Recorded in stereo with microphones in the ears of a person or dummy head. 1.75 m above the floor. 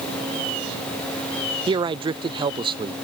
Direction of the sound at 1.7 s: 20° right (ahead or behind).